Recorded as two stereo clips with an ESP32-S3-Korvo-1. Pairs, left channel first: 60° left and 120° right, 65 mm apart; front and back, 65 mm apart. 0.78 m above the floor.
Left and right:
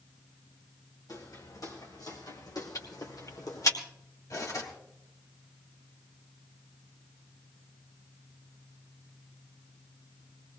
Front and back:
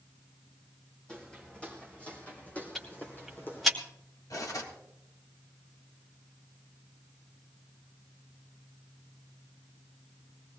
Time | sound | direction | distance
1.1 | footsteps | 75° left | 3.5 m
2.8 | ticking | 90° left | 2.5 m
4.3 | cutlery clinking | 30° left | 3 m